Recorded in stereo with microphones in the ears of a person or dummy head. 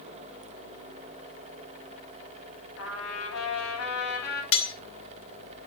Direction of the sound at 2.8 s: 85° left.